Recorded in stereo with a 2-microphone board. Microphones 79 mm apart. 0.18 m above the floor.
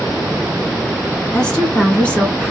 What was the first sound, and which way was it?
A woman speaking, 10° left (ahead or behind).